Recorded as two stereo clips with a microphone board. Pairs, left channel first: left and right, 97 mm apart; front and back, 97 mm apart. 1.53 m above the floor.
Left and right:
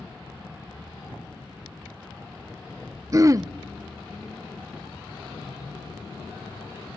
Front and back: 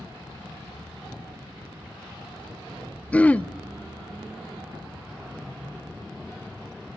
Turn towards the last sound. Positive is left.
turn(degrees=-65)